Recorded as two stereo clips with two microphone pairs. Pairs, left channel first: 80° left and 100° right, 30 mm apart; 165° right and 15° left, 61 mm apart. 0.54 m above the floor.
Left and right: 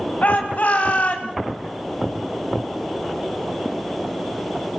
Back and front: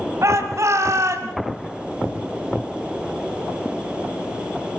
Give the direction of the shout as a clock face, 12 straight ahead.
10 o'clock.